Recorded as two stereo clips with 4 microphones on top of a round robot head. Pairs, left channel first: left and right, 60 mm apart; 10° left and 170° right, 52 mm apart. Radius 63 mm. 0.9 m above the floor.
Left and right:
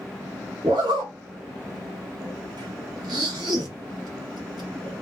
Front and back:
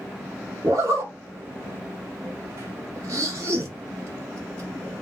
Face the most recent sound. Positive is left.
turn(degrees=-120)